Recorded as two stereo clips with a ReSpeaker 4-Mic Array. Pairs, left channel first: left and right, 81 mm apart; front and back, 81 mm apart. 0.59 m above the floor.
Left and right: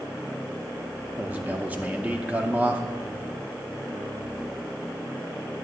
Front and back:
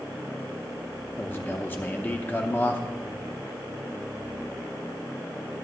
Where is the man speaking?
40° right, 0.7 m.